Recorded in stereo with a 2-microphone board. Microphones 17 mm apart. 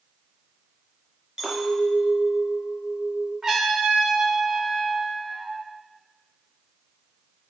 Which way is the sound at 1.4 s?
40° right (ahead or behind).